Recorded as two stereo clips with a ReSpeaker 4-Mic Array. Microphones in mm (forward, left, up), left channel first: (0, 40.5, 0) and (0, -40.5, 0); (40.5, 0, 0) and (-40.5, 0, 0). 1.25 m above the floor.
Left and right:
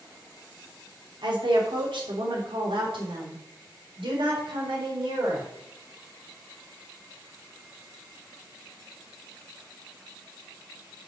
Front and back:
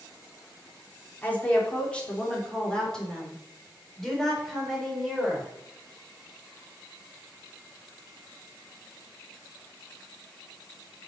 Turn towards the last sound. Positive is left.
turn(degrees=-95)